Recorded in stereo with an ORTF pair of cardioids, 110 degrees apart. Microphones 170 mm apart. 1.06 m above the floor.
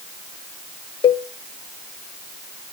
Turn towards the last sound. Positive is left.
turn(degrees=35)